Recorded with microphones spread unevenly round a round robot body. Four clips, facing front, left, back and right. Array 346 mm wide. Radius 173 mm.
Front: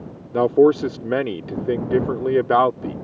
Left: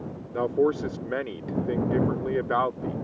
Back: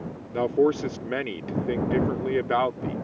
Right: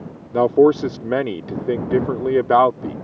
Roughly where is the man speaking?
Ahead right.